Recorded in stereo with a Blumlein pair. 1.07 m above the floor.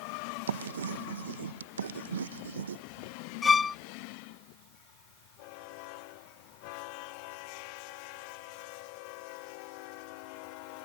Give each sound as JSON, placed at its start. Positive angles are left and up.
{"t": 0.5, "sound": "writing", "azimuth_deg": -65}
{"t": 3.4, "sound": "a violin", "azimuth_deg": 15}